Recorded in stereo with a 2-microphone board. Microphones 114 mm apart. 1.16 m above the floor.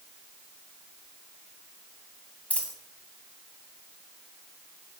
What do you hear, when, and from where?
2.5 s a dropped coin: 10° left (ahead or behind), 1.5 m